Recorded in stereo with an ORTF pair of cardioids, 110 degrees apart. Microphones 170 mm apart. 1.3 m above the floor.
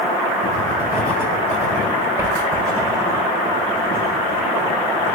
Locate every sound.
0.4 s writing: 20° right, 4 m